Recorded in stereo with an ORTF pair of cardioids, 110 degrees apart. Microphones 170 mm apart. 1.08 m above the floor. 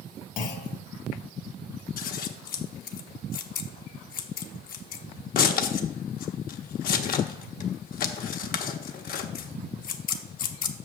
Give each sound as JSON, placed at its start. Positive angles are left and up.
{"t": 0.4, "sound": "a clunk", "azimuth_deg": 50, "distance_m": 1.4}
{"t": 2.0, "sound": "scissors", "azimuth_deg": 55, "distance_m": 1.0}